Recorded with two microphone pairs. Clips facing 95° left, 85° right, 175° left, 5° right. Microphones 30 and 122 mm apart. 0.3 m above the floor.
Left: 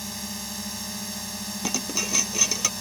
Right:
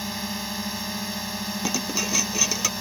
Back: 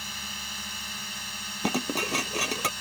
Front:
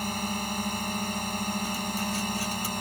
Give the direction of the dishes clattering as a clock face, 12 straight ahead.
6 o'clock.